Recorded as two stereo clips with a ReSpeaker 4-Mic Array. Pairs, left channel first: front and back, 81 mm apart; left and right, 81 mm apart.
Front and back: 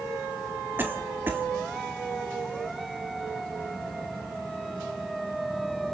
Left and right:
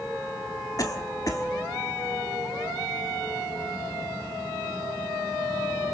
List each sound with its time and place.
0.8 s a cough: 125° left, 1.8 m